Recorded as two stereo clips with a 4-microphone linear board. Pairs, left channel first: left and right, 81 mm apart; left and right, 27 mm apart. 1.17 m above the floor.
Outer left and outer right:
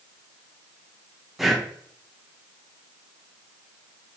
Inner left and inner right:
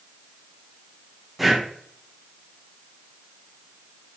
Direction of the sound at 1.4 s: Centre (ahead or behind).